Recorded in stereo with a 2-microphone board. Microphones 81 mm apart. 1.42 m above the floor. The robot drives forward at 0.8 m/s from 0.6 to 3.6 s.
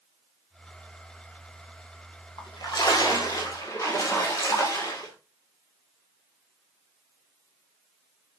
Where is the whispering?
No whispering in this recording.